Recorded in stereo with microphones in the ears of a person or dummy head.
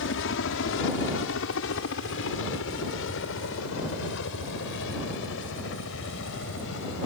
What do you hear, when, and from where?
0.0 s a helicopter: 65° left (ahead or behind); by 7.1 s 70° left (ahead or behind)